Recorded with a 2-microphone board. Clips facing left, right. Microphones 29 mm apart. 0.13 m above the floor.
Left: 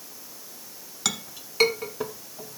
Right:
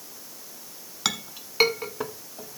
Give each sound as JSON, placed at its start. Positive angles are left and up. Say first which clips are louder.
{"t": 1.1, "sound": "a clink", "louder": "right 1 dB", "side_deg": -15, "distance_m": 0.9}